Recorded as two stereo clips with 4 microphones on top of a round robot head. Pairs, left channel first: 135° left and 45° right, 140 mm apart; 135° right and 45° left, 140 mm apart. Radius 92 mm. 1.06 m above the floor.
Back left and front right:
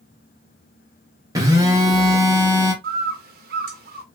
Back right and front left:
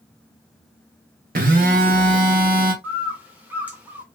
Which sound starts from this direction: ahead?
A phone buzzing, at 1.4 s.